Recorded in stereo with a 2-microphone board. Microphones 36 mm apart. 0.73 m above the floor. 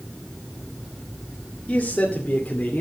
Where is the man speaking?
35° left (ahead or behind), 2.5 m; by 2.8 s 45° left (ahead or behind), 2 m.